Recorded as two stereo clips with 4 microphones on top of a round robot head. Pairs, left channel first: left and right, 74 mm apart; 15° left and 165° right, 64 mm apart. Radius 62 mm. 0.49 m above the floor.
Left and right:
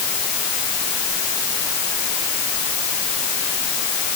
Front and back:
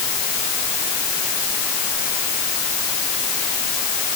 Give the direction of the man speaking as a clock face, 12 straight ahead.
No man speaking in this recording.